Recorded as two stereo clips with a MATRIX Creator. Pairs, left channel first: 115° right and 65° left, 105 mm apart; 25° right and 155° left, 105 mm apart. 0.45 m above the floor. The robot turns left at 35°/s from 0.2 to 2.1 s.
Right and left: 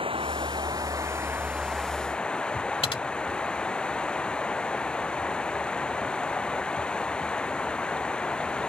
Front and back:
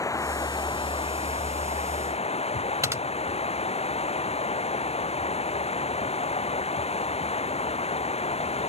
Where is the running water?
35° left; by 8.7 s 30° right.